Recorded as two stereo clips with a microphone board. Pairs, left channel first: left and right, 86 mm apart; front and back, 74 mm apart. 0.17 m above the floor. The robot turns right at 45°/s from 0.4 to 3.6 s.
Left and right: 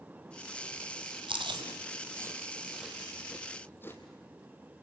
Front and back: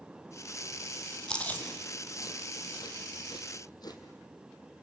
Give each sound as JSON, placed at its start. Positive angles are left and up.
{"t": 1.3, "sound": "chewing", "azimuth_deg": -80, "distance_m": 2.5}